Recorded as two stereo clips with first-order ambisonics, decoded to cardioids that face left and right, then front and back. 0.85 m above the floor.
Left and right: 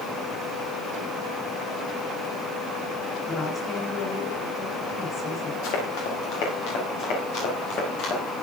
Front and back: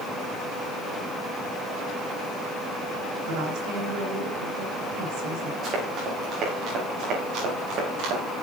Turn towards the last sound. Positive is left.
turn(degrees=140)